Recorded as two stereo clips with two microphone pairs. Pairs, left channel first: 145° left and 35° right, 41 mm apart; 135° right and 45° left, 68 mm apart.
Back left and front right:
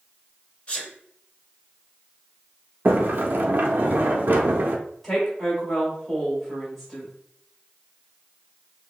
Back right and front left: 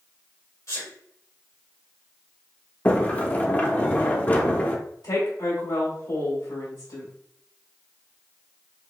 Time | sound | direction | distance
0.7 | a sneeze | 160° right | 1.7 m
2.9 | a sliding door | 70° right | 0.6 m
5.0 | a woman speaking | 135° right | 2 m